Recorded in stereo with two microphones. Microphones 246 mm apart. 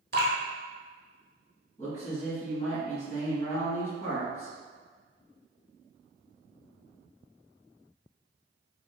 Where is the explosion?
No explosion in this recording.